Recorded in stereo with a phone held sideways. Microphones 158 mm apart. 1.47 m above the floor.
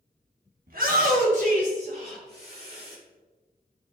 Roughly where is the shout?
Right.